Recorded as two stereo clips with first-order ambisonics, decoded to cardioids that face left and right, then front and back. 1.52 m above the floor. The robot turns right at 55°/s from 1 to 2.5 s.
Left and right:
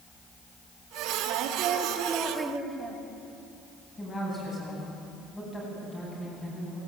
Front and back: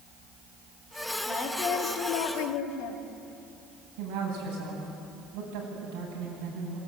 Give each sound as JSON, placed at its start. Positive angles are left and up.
{"t": 1.3, "sound": "a woman speaking", "azimuth_deg": -70, "distance_m": 3.0}
{"t": 4.0, "sound": "a woman speaking", "azimuth_deg": 165, "distance_m": 9.5}